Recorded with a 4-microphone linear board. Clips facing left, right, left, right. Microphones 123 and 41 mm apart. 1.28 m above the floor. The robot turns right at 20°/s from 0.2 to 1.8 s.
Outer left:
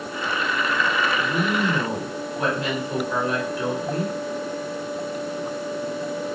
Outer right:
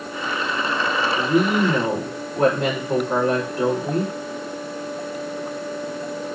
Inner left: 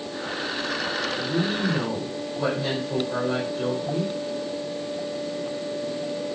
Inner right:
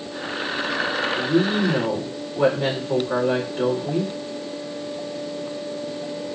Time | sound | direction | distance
1.2 | a woman speaking | 65° right (ahead or behind) | 5 m